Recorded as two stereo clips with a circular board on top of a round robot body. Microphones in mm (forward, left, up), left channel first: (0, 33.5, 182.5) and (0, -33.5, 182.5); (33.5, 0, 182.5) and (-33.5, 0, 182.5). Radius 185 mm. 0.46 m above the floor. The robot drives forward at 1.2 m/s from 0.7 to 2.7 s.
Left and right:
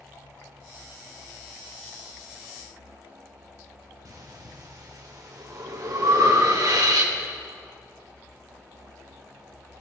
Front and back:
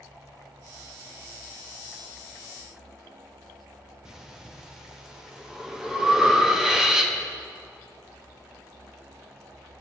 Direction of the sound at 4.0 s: 100° right.